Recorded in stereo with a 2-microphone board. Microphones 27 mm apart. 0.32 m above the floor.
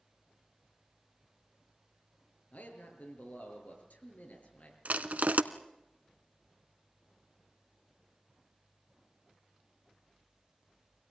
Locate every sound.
2.5 s a man speaking: 65° left (ahead or behind), 6.5 m
4.8 s crushing: 70° right (ahead or behind), 1.0 m